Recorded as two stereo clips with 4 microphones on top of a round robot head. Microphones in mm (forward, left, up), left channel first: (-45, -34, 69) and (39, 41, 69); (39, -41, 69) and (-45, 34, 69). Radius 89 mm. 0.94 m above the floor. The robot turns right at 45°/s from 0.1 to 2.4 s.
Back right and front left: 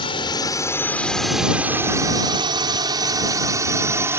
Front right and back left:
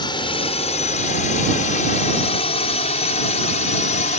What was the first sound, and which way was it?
A drone, 90° right.